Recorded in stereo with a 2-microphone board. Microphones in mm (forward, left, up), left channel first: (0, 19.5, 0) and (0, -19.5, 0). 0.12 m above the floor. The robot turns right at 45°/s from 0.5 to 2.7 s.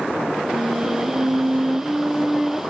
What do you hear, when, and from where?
0.5 s a flute: 95° right, 1.1 m; by 2.6 s straight ahead, 1.1 m